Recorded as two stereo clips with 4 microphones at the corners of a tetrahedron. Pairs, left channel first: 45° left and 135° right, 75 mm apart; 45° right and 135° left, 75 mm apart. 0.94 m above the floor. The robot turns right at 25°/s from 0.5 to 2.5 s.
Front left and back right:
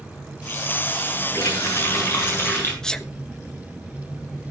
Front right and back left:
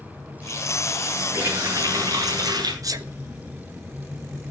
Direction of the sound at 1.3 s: 75° left.